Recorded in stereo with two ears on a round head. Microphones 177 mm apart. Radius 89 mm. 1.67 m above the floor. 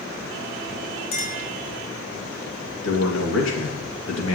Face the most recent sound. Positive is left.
turn(degrees=75)  # may be behind; listen again after turning